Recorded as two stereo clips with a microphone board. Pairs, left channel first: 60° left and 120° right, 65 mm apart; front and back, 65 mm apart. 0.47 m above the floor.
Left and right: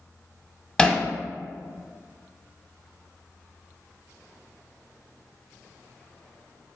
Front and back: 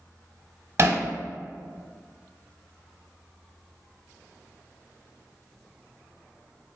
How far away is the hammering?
About 0.6 m.